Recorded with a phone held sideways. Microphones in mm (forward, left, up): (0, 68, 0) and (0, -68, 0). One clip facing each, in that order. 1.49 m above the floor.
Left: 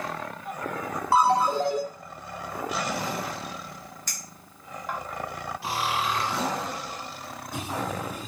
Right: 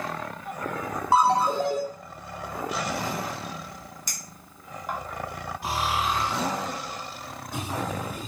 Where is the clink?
15° right (ahead or behind), 1.0 m.